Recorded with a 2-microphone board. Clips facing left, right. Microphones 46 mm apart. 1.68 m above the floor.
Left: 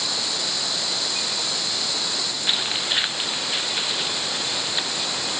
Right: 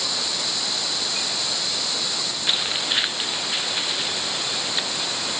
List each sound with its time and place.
Only background noise.